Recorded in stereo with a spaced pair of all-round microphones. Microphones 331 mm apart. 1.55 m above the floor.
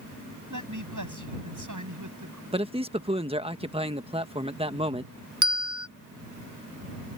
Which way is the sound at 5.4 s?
60° right (ahead or behind).